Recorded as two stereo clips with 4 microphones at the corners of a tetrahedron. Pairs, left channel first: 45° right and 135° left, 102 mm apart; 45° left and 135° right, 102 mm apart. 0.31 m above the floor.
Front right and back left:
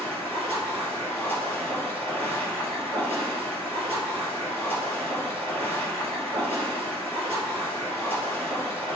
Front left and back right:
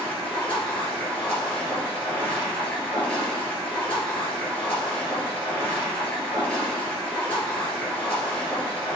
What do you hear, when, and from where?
0.0 s running water: 120° left, 3 m